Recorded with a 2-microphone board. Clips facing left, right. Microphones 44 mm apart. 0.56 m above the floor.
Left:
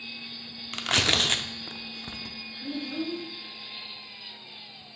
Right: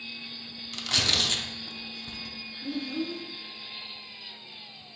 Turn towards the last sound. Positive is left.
turn(degrees=20)  # may be behind; listen again after turning